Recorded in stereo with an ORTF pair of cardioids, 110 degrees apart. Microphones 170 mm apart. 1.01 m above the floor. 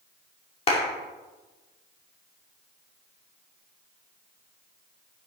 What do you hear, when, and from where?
0.7 s a clap: 35° left, 2.5 m